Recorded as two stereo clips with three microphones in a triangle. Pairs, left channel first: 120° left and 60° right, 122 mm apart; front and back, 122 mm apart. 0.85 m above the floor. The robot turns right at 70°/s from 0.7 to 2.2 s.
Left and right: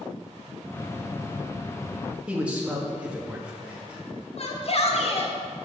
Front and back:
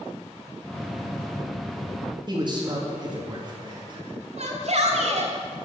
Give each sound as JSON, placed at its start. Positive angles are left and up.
{"t": 2.3, "sound": "a man speaking", "azimuth_deg": -140, "distance_m": 1.6}
{"t": 4.4, "sound": "a shout", "azimuth_deg": 155, "distance_m": 2.0}